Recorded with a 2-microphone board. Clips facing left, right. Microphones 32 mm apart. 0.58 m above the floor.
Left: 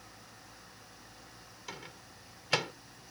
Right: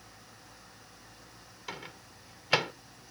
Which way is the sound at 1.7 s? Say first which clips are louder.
Right 4 dB; 20° right (ahead or behind).